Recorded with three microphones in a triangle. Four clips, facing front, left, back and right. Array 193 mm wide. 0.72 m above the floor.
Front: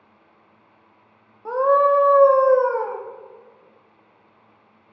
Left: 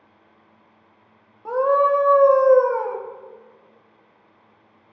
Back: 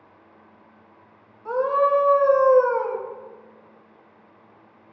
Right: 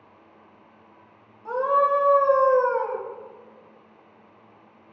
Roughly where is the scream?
Ahead left.